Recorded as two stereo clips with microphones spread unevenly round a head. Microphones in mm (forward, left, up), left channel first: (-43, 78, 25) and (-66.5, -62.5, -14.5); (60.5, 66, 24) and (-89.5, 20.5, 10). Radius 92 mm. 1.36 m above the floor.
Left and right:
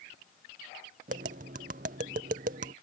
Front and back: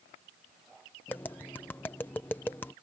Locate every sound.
1.1 s tapping: 65° right